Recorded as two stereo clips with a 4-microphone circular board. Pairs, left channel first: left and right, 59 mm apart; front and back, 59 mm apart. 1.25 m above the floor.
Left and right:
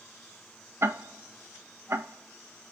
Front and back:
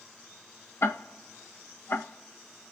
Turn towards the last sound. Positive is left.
turn(degrees=-45)